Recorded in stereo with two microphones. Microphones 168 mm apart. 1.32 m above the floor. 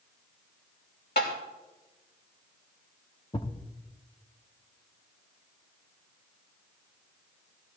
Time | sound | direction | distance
1.2 | tapping | 75° left (ahead or behind) | 2.5 m
3.3 | a thud | 30° left (ahead or behind) | 1.0 m